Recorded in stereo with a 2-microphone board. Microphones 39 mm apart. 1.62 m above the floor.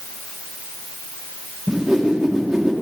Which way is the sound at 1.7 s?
5° right (ahead or behind).